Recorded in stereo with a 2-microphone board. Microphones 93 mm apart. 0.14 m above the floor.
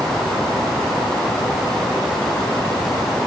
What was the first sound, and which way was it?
Only background noise.